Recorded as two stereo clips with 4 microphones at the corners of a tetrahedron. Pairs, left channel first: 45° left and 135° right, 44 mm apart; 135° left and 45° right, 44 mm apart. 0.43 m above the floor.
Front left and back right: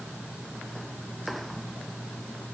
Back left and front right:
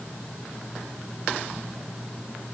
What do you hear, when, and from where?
Only background noise.